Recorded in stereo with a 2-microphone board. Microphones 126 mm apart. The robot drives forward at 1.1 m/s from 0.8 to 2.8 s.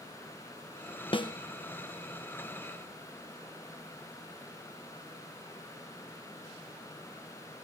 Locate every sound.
1.1 s a snare drum: 45° left (ahead or behind), 0.7 m; by 1.3 s 35° left (ahead or behind), 0.8 m